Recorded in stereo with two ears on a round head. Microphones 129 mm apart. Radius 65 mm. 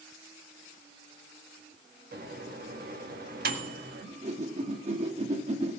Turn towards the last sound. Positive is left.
turn(degrees=-45)  # may be behind; listen again after turning